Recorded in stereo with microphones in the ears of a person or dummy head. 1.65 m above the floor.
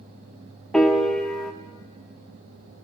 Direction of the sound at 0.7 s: Centre (ahead or behind).